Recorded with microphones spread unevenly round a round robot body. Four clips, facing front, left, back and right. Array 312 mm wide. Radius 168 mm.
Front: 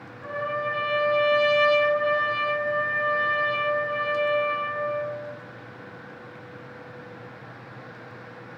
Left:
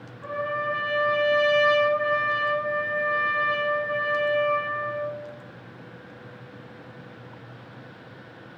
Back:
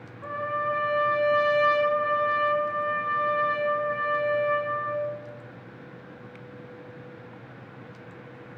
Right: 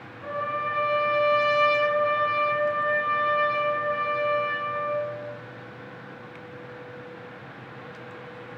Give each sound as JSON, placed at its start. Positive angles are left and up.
{"t": 0.2, "sound": "a trumpet", "azimuth_deg": 170, "distance_m": 1.4}